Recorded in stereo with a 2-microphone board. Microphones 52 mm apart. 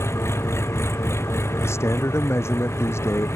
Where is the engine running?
60° left (ahead or behind).